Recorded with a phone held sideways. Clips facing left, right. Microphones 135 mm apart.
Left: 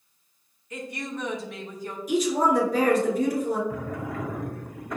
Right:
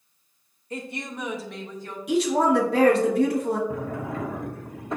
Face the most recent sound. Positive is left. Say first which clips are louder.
# right 2 dB
turn(degrees=-25)  # may be behind; listen again after turning